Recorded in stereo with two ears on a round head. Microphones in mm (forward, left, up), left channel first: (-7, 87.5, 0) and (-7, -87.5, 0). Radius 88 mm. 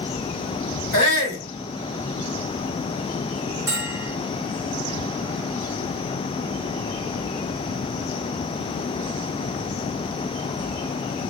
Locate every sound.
0.9 s a shout: 60° left (ahead or behind), 1.6 m
3.7 s a bell: 15° right (ahead or behind), 1.1 m